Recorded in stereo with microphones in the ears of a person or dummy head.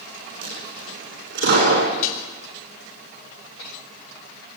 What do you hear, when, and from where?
0.4 s a dropped coin: 60° right (ahead or behind), 9.5 m
2.0 s dishes clattering: 45° left (ahead or behind), 3.5 m